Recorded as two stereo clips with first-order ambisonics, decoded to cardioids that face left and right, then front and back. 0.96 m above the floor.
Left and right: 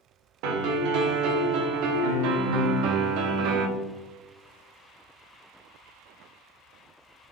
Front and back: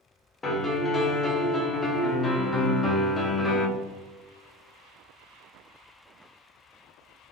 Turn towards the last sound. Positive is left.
turn(degrees=-70)